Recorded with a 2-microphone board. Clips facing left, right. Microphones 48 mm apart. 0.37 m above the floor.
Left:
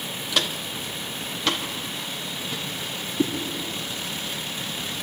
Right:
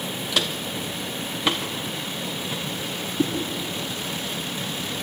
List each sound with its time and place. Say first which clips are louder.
0.3 s footsteps: even; centre (ahead or behind), 1.2 m; by 2.6 s 20° right (ahead or behind), 4.5 m
3.2 s a whoosh: even; 5° right (ahead or behind), 4.5 m